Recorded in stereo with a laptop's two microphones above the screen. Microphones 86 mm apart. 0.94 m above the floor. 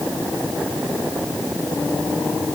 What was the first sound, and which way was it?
Only background noise.